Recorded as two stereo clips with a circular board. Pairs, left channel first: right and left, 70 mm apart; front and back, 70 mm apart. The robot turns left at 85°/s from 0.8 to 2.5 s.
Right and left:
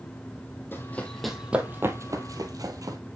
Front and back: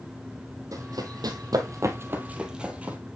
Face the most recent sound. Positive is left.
turn(degrees=115)